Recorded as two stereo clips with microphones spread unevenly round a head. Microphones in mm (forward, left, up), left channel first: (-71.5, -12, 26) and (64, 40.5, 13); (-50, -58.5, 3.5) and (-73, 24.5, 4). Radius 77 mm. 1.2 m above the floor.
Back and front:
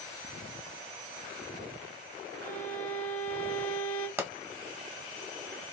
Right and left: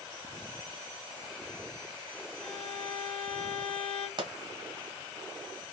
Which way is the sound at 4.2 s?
90° left.